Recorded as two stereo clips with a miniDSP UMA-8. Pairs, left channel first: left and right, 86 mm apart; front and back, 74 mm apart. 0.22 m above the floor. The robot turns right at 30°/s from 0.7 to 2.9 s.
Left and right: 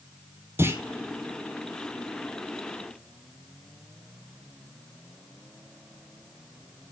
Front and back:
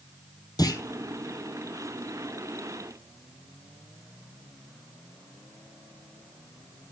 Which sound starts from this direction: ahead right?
A clunk, at 0.6 s.